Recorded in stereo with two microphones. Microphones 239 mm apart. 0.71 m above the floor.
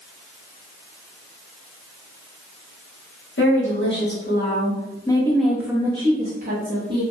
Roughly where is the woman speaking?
Left.